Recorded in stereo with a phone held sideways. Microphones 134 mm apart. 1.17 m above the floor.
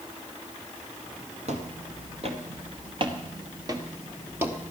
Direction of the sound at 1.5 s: 55° right (ahead or behind).